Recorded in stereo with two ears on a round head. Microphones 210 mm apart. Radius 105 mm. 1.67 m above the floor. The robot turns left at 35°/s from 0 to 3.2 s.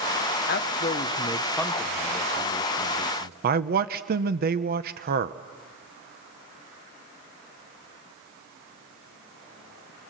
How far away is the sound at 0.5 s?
About 1.2 m.